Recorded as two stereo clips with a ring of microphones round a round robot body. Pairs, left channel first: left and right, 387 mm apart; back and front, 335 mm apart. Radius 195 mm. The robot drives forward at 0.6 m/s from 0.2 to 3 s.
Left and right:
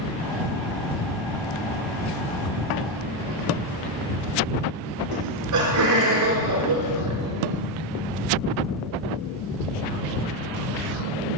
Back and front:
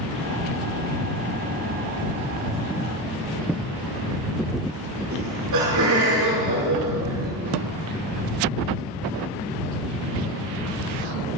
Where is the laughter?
45° right, 5.5 m.